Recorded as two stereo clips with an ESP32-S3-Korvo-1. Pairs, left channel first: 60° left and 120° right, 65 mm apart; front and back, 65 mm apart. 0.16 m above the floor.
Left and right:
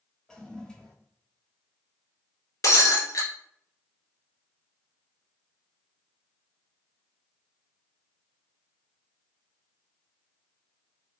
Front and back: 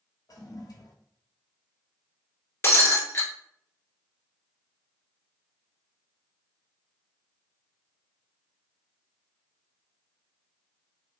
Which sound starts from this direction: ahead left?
Breaking glass, at 2.6 s.